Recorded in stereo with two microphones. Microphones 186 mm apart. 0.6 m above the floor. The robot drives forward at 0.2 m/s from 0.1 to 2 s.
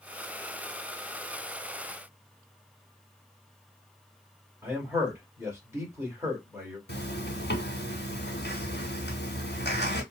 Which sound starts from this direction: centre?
A man speaking, at 4.6 s.